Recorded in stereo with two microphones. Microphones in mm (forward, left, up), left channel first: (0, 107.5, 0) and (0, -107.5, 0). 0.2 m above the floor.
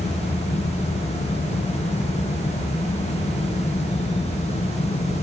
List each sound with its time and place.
Only background noise.